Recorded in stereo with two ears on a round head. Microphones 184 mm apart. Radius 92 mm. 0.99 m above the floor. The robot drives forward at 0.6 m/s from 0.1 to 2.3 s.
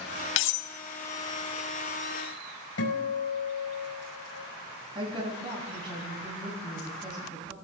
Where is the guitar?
70° left (ahead or behind), 5.5 m.